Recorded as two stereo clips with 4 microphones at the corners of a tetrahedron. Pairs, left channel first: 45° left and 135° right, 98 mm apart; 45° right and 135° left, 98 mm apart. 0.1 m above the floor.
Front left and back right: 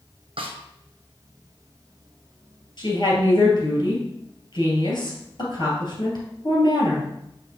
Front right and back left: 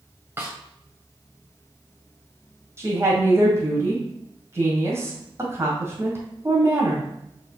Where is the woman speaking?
75° left, 2.5 m.